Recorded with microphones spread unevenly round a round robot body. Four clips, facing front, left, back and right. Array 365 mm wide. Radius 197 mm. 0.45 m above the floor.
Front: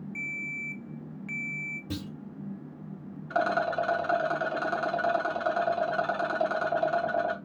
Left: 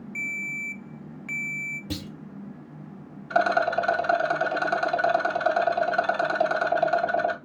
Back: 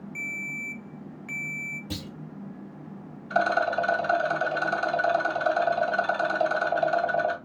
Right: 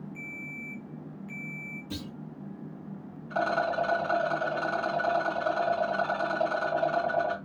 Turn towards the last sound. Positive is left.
turn(degrees=65)